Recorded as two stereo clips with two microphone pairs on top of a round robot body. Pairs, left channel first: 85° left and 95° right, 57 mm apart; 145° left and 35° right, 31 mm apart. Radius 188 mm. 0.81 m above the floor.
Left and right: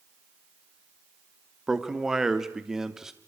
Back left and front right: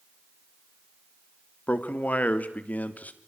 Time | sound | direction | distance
1.7 | a man speaking | 175° right | 2.5 m